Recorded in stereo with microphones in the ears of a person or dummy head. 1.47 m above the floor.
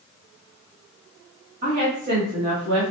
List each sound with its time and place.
1.6 s a woman speaking: 50° right (ahead or behind), 1.3 m